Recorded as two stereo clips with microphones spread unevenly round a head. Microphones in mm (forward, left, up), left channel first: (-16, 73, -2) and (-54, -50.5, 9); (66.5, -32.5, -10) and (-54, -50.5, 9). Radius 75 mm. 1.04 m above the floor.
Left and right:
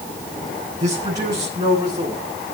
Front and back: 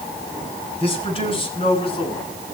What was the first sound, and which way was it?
A man speaking, 35° right.